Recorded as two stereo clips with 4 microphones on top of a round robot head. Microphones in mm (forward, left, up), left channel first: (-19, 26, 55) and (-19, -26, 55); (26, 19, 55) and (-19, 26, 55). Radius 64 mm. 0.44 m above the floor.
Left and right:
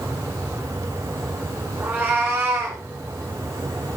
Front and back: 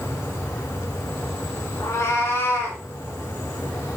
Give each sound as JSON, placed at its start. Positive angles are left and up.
{"t": 1.8, "sound": "a cat meowing", "azimuth_deg": -30, "distance_m": 3.5}